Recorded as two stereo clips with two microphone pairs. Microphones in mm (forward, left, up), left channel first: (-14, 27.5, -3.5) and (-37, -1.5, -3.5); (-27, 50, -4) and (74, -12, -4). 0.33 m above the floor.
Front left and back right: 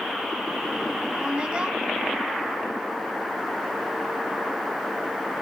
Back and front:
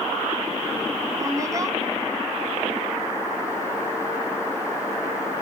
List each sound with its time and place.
1.2 s a woman speaking: 80° right, 1.8 m